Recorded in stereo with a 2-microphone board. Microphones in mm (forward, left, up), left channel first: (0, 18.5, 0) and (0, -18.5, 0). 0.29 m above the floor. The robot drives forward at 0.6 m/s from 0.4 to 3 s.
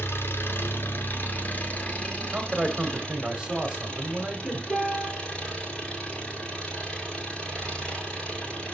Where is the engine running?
80° left, 1.0 m; by 8.7 s 30° left (ahead or behind), 2.0 m.